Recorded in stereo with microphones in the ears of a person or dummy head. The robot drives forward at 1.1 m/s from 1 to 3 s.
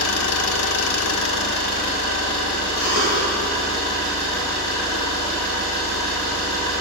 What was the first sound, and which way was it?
An engine running, 80° left.